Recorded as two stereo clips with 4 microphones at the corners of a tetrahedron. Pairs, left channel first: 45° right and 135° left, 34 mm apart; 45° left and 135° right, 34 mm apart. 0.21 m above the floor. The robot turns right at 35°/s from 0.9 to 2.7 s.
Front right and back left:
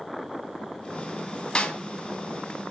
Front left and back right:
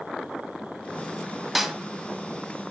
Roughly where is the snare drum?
Ahead right.